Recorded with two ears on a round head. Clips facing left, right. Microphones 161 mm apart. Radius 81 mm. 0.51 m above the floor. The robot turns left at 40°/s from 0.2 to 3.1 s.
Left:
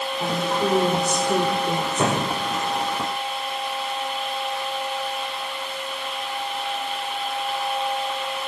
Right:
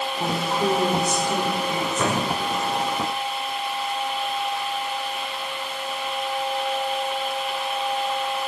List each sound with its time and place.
0.2 s a woman speaking: 160° right, 1.7 m; by 2.1 s 120° left, 1.7 m
2.0 s a thud: 20° left (ahead or behind), 4 m; by 2.3 s 30° left (ahead or behind), 4 m